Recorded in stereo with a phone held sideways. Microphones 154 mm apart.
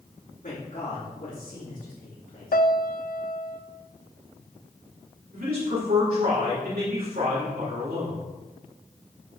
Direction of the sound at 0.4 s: 65° left (ahead or behind).